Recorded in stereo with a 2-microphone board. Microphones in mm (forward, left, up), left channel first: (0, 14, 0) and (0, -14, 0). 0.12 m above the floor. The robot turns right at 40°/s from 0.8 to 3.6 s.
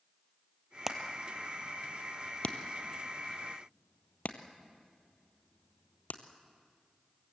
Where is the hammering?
15° right (ahead or behind), 1.5 m; by 6.2 s 65° left (ahead or behind), 1.5 m.